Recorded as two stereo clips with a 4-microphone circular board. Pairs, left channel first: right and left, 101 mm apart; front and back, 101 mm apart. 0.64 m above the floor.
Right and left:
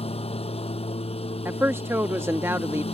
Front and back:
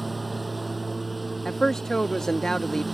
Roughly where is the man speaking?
Left.